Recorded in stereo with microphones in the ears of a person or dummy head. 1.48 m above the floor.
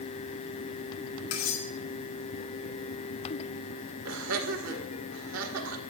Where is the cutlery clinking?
75° left (ahead or behind), 3 m.